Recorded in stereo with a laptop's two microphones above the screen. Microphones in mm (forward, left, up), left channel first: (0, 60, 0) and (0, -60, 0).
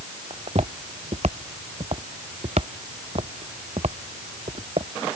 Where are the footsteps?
60° right (ahead or behind); by 4.9 s 55° right (ahead or behind).